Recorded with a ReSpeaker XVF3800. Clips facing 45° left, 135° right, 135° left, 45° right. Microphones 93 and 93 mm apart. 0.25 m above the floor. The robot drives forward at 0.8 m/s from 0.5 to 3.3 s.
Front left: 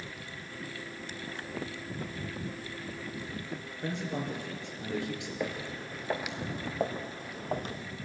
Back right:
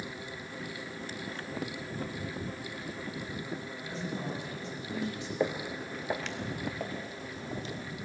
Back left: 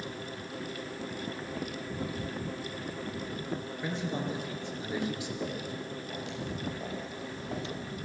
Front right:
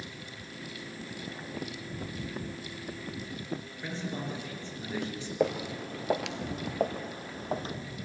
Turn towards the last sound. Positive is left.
turn(degrees=10)